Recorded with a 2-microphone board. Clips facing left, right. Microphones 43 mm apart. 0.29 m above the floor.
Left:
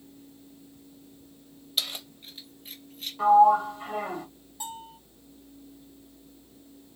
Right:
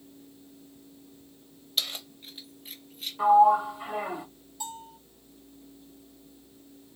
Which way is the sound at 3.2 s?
10° right (ahead or behind).